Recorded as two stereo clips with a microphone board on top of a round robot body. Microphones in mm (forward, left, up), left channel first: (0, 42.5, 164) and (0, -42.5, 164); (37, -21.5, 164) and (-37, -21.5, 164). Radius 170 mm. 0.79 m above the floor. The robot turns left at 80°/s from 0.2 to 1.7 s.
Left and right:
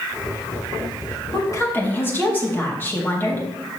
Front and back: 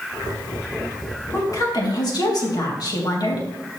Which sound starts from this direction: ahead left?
A woman speaking, at 1.3 s.